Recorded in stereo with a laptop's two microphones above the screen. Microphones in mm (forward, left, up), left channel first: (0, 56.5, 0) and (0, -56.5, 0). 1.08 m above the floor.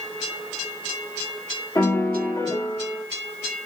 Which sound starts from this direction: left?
A piano, at 1.8 s.